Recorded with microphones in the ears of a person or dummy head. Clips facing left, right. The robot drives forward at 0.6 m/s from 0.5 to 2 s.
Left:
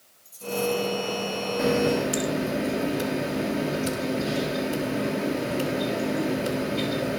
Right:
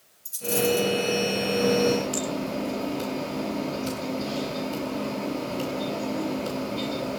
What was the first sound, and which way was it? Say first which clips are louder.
A dropped coin: right 2 dB; 70° right (ahead or behind).